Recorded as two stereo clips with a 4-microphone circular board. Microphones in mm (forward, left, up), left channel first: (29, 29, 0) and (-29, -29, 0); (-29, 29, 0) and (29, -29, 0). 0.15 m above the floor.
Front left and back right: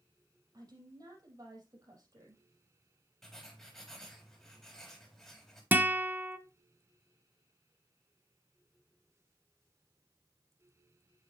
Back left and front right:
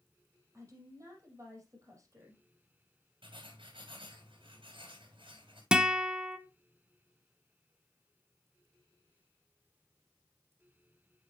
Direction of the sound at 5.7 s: 110° right.